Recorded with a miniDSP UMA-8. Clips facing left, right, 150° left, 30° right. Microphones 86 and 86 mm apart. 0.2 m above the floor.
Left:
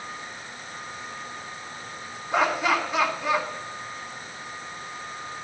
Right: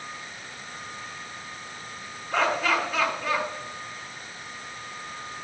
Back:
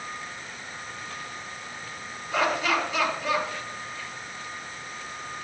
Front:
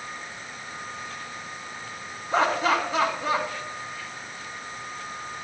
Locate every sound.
2.3 s laughter: 15° left, 3 m